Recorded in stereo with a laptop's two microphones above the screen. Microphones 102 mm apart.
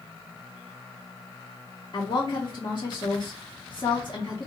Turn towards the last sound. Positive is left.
turn(degrees=50)  # may be behind; listen again after turning